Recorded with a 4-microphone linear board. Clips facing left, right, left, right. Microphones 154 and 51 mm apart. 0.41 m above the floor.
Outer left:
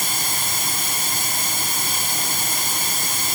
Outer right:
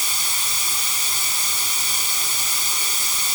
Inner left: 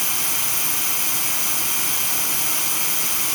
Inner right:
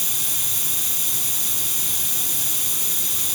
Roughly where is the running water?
Left.